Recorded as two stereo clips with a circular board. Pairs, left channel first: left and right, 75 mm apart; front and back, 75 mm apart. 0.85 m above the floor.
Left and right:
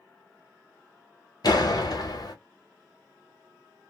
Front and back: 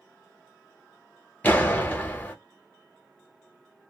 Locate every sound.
1.4 s a door slam: 70° left, 0.8 m